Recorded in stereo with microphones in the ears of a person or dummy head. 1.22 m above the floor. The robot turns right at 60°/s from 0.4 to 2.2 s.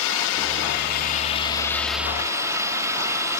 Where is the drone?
85° left; by 3.4 s 165° right.